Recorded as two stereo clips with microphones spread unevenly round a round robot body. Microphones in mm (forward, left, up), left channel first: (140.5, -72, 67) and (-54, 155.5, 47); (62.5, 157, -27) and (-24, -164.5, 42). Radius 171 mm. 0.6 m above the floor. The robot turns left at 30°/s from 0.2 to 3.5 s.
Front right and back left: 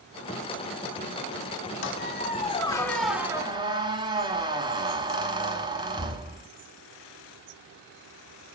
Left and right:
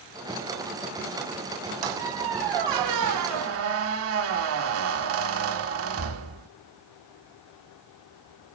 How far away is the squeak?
About 1.4 m.